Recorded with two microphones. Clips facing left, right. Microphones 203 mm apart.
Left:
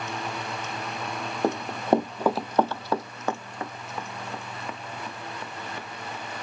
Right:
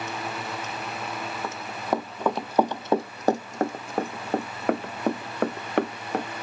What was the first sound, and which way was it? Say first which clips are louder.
Running footsteps: left 7 dB; 45° left (ahead or behind).